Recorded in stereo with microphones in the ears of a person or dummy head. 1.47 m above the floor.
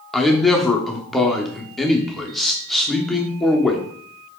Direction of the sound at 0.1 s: 5° left (ahead or behind).